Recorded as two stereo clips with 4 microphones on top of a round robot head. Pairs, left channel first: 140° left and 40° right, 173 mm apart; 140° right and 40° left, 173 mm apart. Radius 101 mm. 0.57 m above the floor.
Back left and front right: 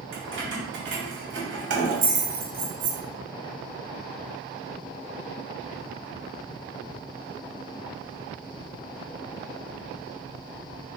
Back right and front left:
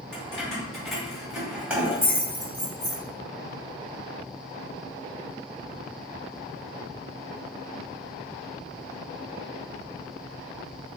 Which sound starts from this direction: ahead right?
Keys jangling, at 0.1 s.